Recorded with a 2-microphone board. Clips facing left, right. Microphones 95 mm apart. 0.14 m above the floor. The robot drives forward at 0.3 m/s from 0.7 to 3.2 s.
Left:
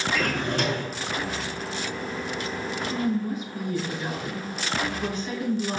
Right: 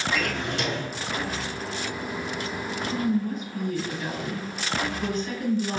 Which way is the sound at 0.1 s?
45° left (ahead or behind).